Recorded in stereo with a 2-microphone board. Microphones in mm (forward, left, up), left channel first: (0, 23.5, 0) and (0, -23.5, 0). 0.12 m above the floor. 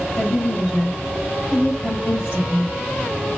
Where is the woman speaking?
60° left (ahead or behind), 2.5 m.